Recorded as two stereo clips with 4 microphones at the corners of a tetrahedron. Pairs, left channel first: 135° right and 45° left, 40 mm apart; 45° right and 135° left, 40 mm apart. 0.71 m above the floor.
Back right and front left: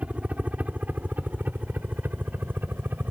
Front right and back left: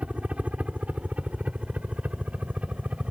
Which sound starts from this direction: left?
A helicopter, at 0.0 s.